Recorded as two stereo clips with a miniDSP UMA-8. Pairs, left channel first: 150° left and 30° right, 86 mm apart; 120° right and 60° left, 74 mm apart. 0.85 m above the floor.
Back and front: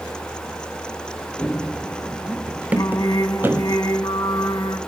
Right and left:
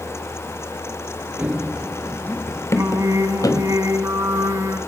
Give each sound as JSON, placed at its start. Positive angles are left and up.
{"t": 1.4, "sound": "running footsteps", "azimuth_deg": 95, "distance_m": 0.9}
{"t": 2.8, "sound": "singing", "azimuth_deg": 105, "distance_m": 6.0}